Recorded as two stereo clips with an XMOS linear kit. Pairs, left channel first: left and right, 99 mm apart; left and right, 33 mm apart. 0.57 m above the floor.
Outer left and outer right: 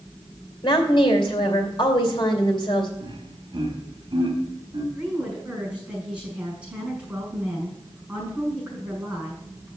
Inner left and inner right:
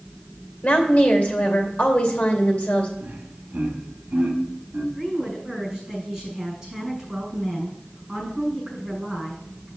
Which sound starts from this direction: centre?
A woman speaking, at 5.0 s.